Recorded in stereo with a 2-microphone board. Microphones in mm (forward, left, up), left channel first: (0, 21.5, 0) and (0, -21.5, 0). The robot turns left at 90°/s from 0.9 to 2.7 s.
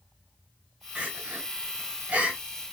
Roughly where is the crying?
Right.